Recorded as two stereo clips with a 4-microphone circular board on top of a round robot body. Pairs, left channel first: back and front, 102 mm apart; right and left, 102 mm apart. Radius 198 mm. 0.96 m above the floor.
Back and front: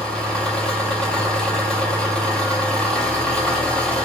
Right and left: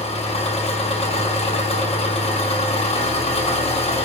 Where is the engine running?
100° right, 4 m.